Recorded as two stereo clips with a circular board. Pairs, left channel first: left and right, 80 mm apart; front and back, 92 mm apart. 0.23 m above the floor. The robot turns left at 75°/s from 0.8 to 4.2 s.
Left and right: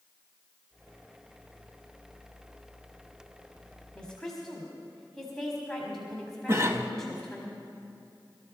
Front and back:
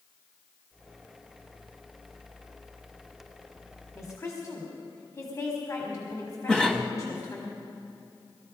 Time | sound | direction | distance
4.0 | a woman speaking | 30° left | 1.9 m
6.5 | a cough | 75° right | 1.2 m